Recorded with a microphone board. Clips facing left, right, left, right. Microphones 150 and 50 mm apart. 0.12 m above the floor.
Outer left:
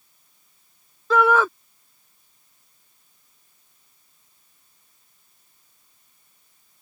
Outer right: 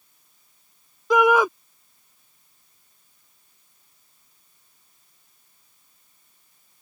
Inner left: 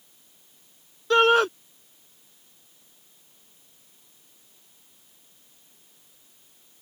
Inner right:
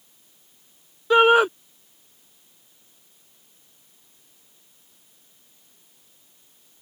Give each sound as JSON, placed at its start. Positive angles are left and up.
{"t": 1.1, "sound": "a shout", "side_deg": -15}